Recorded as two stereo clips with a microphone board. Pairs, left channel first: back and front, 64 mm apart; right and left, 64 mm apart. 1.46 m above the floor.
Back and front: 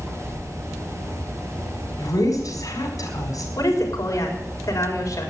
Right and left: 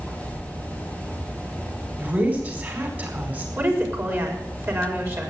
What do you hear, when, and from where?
2.0 s a woman speaking: 150° left, 4.5 m
3.6 s a woman speaking: 140° left, 4.5 m